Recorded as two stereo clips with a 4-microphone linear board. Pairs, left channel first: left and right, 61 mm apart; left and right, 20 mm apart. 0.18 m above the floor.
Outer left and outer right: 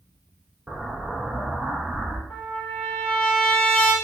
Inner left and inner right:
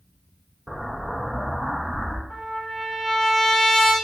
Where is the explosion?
15° right (ahead or behind), 0.5 m.